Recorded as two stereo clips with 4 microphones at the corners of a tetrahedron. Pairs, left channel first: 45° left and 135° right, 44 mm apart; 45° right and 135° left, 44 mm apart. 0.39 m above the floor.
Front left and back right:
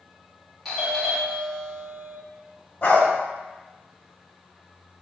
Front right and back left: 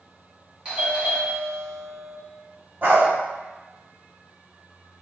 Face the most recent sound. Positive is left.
turn(degrees=95)